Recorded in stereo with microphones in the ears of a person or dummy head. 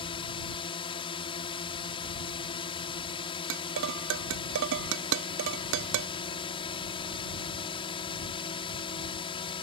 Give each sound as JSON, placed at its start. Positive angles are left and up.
{"t": 0.0, "sound": "a drone", "side_deg": 25}
{"t": 3.5, "sound": "dishes clattering", "side_deg": -70}